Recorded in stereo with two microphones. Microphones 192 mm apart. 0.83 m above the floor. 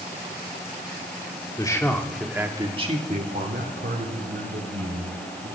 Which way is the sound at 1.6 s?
20° left (ahead or behind).